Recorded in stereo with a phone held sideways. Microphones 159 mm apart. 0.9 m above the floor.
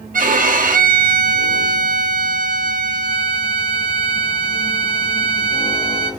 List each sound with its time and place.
0.1 s a violin: 60° right (ahead or behind), 0.7 m